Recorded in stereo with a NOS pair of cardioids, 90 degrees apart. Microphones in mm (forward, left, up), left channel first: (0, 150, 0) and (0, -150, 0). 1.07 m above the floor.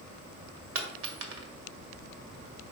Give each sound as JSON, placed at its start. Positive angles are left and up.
{"t": 0.8, "sound": "a dropped coin", "azimuth_deg": -55, "distance_m": 1.3}